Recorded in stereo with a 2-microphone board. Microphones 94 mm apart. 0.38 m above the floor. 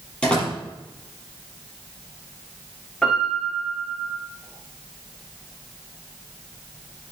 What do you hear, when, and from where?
0.2 s a door slam: 10° left (ahead or behind), 7.5 m
3.0 s a piano: 10° left (ahead or behind), 7 m